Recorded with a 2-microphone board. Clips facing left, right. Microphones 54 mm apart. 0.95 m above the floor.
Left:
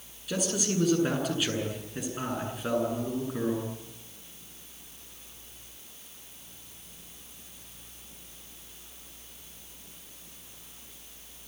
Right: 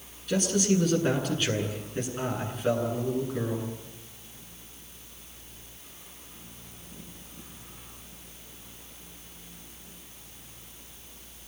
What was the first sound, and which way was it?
A man speaking, 5° left (ahead or behind).